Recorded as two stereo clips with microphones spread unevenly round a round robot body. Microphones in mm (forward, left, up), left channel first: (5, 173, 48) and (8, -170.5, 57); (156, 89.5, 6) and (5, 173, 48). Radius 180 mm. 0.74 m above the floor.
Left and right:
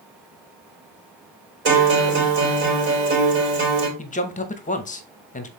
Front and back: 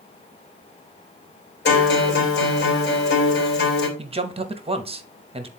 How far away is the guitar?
About 3 m.